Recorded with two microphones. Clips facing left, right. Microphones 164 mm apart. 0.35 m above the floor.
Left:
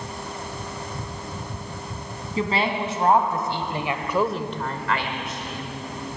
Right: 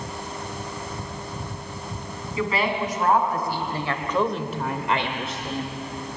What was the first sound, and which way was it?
A woman speaking, 30° left (ahead or behind).